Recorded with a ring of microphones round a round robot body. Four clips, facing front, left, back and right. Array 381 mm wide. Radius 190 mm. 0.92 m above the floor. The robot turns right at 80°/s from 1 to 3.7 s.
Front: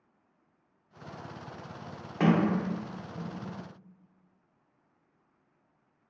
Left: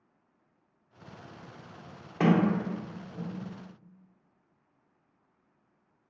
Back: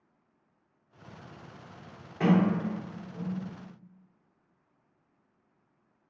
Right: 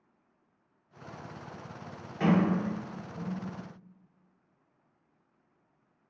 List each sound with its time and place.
2.2 s a sliding door: 60° left, 0.9 m; by 3.4 s 155° left, 0.9 m